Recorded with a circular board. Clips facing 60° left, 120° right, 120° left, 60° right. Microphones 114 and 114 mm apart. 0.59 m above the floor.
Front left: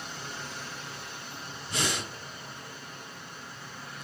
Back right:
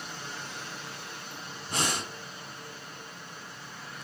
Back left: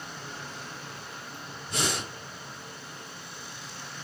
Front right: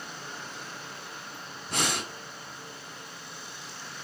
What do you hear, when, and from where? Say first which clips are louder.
1.7 s breathing: back right 1 dB, even; 85° right, 4.5 m